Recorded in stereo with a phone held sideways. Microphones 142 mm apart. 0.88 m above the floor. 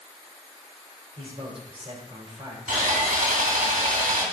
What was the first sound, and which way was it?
A man speaking, 45° right (ahead or behind).